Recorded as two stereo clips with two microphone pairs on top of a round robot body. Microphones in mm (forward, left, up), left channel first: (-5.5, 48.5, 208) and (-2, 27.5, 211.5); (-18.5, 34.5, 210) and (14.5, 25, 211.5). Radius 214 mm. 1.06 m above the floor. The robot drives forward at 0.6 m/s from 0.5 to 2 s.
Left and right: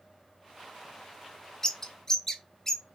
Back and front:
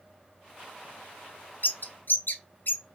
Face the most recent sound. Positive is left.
turn(degrees=165)